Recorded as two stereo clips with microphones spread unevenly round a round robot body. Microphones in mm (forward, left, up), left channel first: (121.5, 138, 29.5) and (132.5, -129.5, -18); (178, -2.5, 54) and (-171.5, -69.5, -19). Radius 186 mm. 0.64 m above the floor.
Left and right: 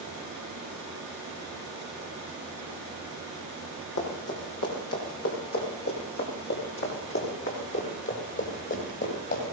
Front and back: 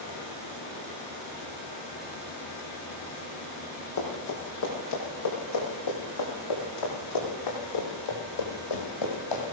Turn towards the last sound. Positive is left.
turn(degrees=45)